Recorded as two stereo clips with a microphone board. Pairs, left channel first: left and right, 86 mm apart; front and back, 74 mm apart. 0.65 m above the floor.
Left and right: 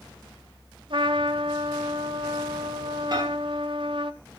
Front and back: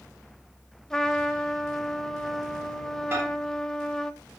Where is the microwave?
130° right, 3.5 m.